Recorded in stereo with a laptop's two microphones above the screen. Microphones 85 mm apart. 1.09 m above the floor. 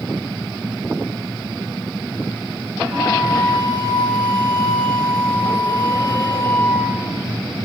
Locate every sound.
2.9 s a flute: 45° right (ahead or behind), 1.7 m